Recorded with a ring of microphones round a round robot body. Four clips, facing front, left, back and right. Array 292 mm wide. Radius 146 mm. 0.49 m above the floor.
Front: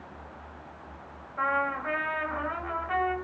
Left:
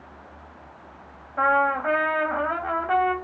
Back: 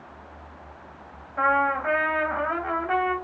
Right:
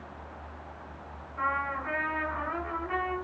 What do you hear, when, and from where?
1.4 s a trumpet: 110° left, 3 m